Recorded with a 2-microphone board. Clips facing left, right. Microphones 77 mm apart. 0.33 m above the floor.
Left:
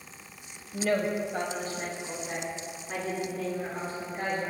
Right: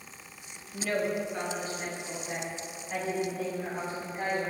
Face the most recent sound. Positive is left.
turn(degrees=50)  # may be behind; listen again after turning